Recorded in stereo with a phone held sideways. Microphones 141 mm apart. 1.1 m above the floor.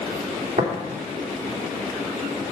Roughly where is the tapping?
Right.